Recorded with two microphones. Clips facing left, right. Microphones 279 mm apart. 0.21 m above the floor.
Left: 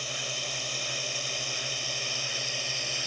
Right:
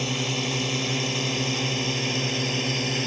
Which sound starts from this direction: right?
A drone, at 0.0 s.